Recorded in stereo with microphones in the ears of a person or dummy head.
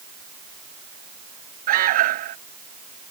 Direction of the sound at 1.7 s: 55° right (ahead or behind).